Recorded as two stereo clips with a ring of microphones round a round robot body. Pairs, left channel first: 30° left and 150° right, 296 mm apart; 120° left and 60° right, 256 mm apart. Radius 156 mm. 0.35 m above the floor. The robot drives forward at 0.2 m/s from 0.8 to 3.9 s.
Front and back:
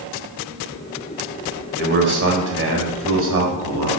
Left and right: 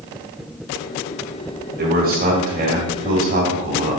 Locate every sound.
1.8 s a man speaking: 105° right, 1.8 m; by 4.0 s 120° right, 2.0 m